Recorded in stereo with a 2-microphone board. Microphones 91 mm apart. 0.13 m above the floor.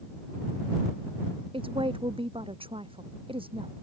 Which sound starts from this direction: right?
A woman speaking, at 1.5 s.